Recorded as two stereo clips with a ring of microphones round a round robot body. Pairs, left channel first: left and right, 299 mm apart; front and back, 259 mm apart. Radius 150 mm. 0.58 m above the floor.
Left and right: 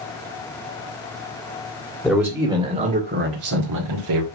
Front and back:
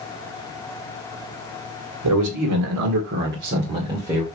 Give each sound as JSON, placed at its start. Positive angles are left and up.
{"t": 2.0, "sound": "a man speaking", "azimuth_deg": 175, "distance_m": 2.5}